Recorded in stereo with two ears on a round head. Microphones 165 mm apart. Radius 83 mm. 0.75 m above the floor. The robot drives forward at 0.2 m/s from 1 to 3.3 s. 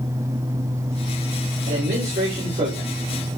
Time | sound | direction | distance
1.6 | a man speaking | 40° right (ahead or behind) | 3 m